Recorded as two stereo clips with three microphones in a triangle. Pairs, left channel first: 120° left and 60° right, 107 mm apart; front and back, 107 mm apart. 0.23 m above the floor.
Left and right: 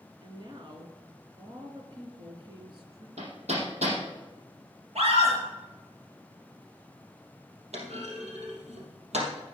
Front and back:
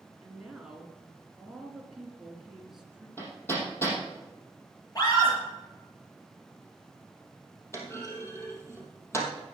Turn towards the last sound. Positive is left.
turn(degrees=-65)